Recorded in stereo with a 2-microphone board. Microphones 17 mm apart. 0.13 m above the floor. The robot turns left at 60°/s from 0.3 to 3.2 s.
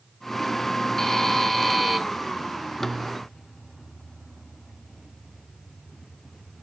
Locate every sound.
1.0 s a buzzer: 75° left, 1.3 m; by 2.0 s 10° left, 1.3 m